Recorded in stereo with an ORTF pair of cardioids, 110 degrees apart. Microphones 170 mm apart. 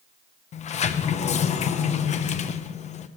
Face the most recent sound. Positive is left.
turn(degrees=45)